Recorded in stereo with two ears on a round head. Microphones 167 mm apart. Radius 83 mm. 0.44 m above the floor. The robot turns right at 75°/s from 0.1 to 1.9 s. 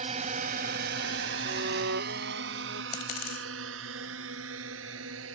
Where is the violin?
135° right; by 2.8 s 100° right.